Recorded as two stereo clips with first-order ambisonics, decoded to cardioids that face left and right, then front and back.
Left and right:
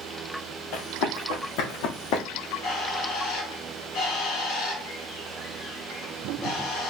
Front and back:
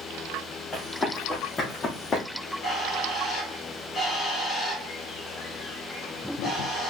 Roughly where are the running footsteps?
Left.